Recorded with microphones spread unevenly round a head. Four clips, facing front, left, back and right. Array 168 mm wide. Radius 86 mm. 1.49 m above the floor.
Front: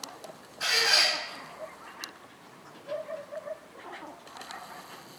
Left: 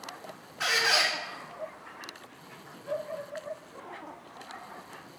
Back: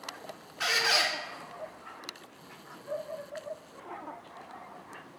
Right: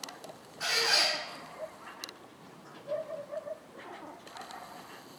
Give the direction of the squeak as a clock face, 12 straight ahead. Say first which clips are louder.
Left 4 dB, even; 8 o'clock.